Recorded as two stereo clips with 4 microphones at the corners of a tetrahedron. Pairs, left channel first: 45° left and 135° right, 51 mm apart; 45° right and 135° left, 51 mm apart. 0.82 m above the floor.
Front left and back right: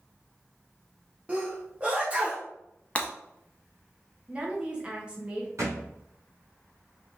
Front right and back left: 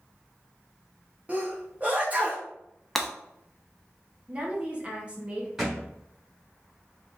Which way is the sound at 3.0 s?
30° left.